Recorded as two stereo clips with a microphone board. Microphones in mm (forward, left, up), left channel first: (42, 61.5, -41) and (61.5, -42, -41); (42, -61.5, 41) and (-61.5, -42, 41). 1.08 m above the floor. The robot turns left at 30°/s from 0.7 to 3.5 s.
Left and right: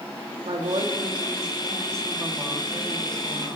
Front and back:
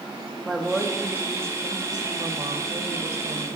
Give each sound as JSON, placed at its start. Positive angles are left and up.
{"t": 0.5, "sound": "a woman speaking", "azimuth_deg": -105, "distance_m": 2.0}